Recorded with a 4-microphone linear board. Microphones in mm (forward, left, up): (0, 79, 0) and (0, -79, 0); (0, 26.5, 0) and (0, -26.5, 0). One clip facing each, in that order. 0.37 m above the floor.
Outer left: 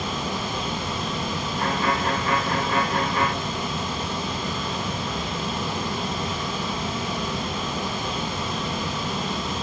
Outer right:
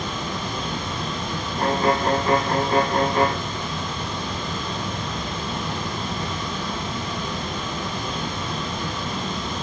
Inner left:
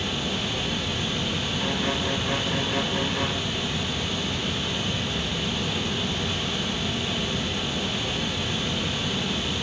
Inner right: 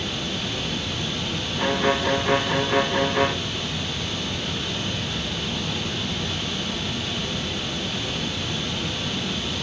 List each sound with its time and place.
0.0 s running water: 5° left (ahead or behind), 9 m
1.6 s a violin: 40° right (ahead or behind), 1.0 m